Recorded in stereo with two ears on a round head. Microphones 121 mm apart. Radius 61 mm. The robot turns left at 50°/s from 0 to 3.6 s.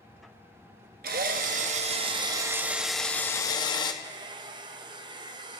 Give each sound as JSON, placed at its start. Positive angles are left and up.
{"t": 1.0, "sound": "a drill", "azimuth_deg": -85, "distance_m": 1.0}
{"t": 4.0, "sound": "a hair dryer", "side_deg": -35, "distance_m": 0.7}